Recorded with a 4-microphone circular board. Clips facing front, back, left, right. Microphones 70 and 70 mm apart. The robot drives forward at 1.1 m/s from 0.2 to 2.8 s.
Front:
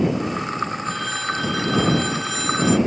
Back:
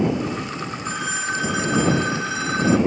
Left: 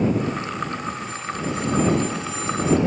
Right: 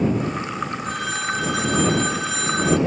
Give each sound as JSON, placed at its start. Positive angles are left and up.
{"t": 0.8, "sound": "a phone ringing", "azimuth_deg": -105}